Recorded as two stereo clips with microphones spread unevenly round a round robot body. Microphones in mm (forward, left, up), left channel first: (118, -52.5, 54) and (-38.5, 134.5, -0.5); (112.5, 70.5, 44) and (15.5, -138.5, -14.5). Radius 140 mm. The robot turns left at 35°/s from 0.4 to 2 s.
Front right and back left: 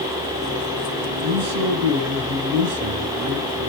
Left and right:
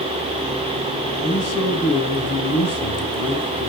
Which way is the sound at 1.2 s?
140° left.